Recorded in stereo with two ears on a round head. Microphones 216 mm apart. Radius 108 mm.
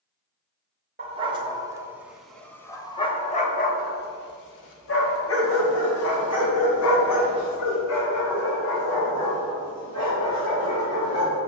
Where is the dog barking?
25° right (ahead or behind), 1.4 m; by 11.4 s 75° left (ahead or behind), 5 m.